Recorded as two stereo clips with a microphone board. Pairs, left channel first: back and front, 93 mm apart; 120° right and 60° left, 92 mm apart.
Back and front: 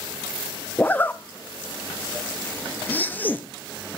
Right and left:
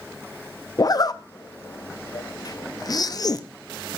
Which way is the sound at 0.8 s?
120° right.